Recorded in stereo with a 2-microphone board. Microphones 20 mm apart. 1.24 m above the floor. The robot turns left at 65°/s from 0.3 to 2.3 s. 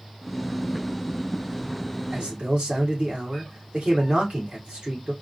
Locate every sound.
2.1 s a man speaking: 55° right (ahead or behind), 1.7 m; by 5.1 s 65° right (ahead or behind), 1.7 m